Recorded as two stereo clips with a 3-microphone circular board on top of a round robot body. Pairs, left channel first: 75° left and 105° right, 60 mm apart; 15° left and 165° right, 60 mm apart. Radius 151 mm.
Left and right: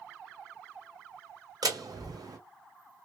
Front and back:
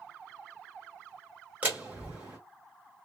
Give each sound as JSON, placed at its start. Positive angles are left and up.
{"t": 1.6, "sound": "a door slam", "azimuth_deg": -100, "distance_m": 2.0}